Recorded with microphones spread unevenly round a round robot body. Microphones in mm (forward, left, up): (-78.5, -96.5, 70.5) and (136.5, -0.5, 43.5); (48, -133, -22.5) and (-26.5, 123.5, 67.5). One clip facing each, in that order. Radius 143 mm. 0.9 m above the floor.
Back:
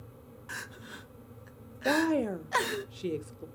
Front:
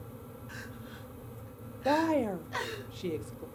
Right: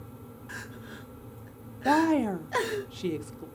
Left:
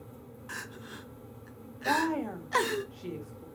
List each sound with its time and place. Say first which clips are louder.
0.5 s crying: front 3 dB, right 1 dB; 175° right, 1.0 m
1.9 s a woman speaking: back 1 dB, right 7 dB; 75° right, 1.3 m